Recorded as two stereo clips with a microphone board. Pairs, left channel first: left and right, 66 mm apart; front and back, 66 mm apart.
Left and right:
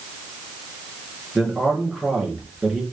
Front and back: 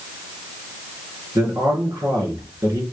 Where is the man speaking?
175° right, 3.5 m.